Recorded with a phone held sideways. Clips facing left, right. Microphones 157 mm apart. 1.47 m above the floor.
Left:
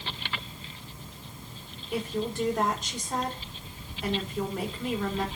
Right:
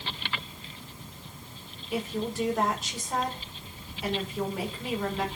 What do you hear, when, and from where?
1.9 s a woman speaking: 5° right (ahead or behind), 6 m